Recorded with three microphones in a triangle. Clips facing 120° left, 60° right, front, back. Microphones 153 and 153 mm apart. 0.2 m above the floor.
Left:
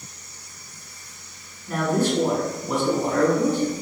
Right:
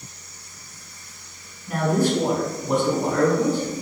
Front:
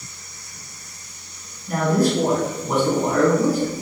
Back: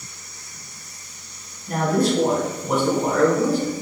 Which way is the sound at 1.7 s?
135° right.